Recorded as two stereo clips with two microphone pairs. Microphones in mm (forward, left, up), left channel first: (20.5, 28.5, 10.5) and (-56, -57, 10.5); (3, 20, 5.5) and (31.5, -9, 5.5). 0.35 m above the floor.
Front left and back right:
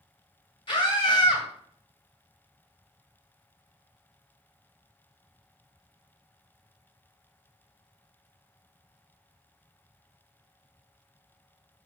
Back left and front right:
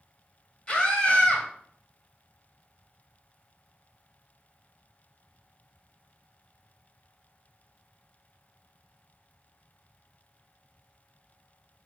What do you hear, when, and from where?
0.7 s a scream: 80° left, 2 m